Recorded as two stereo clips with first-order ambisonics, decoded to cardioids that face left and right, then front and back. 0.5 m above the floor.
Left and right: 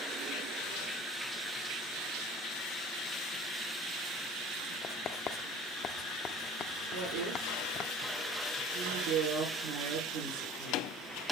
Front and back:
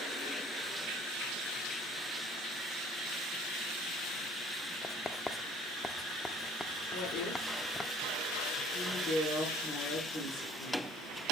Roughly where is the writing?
Left.